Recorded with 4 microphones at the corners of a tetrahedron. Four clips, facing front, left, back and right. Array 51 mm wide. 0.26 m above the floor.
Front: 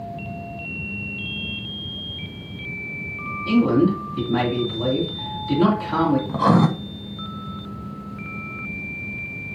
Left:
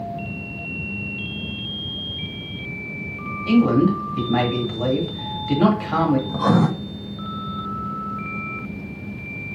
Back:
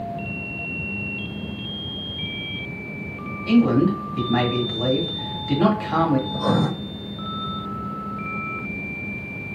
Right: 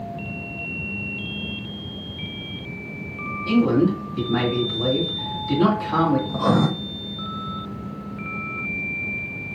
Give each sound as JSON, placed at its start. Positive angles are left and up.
{"t": 3.5, "sound": "a man speaking", "azimuth_deg": 140, "distance_m": 1.8}
{"t": 6.3, "sound": "writing", "azimuth_deg": 10, "distance_m": 0.8}